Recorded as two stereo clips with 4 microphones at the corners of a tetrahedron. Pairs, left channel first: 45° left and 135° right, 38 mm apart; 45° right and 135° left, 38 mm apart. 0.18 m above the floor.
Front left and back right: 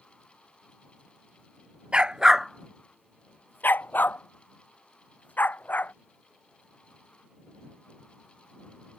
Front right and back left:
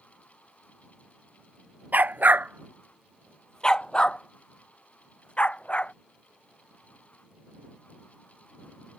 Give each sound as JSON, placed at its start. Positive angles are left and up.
{"t": 1.9, "sound": "a dog barking", "azimuth_deg": 165}